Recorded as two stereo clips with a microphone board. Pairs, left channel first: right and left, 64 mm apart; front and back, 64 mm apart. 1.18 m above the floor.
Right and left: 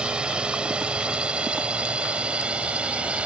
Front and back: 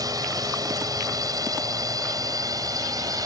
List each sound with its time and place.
0.0 s a drone: 165° left